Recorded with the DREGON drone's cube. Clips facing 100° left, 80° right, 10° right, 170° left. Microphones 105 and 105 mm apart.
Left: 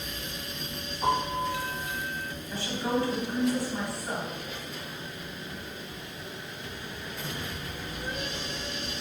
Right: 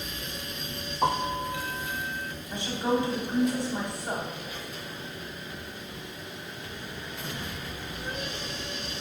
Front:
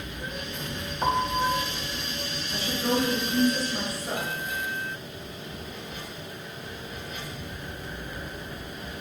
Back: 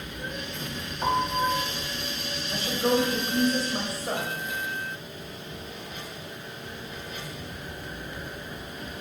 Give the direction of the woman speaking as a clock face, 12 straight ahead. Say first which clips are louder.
Right 2 dB, back 2 dB; 5 o'clock.